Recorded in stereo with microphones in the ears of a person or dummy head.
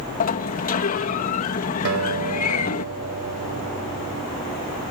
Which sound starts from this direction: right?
A guitar, at 1.9 s.